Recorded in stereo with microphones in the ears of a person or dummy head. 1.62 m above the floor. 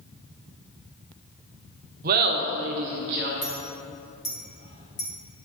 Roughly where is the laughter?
Right.